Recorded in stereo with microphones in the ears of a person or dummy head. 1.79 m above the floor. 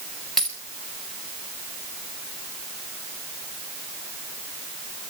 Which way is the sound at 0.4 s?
Centre (ahead or behind).